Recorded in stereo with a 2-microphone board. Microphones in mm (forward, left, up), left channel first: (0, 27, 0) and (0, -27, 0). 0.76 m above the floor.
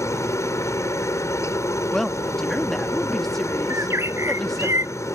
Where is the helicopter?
60° left (ahead or behind).